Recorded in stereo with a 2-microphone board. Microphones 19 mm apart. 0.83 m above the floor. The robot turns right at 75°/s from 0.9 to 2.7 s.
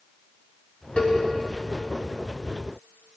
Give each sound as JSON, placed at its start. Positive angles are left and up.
{"t": 1.0, "sound": "a cowbell", "side_deg": 50, "distance_m": 5.5}